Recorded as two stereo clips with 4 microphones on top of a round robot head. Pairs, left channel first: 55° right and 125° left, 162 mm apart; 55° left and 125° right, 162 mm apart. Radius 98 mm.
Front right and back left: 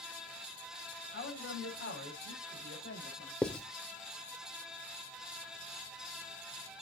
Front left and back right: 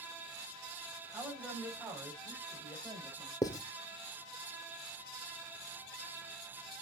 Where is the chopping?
I don't hear chopping.